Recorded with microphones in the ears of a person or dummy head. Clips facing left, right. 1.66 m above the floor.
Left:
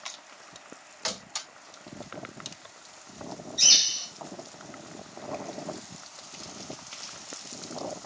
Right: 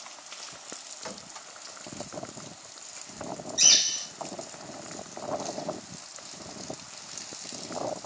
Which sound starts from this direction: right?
A bird, at 3.6 s.